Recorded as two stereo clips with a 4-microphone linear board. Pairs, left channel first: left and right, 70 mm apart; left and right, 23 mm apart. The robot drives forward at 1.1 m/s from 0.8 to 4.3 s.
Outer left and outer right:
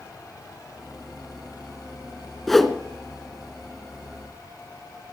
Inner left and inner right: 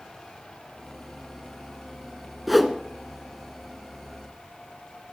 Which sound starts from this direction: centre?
A whoosh, at 2.5 s.